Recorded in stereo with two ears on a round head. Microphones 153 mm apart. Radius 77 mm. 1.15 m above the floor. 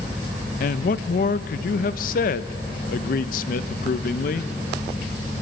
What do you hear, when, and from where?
0.6 s a man speaking: 50° left (ahead or behind), 0.6 m